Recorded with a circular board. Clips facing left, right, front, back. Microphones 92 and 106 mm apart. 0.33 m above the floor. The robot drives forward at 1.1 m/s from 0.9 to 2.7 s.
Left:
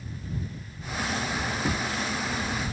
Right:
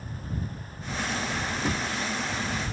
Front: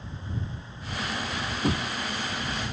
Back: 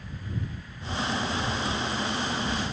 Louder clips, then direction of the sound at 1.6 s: Right 1 dB, front 2 dB; 5° right.